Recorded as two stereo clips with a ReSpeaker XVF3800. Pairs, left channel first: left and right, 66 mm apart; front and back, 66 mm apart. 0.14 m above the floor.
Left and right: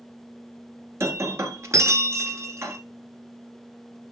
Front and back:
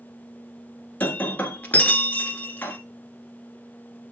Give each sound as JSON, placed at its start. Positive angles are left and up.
{"t": 1.0, "sound": "breaking glass", "azimuth_deg": -60, "distance_m": 1.3}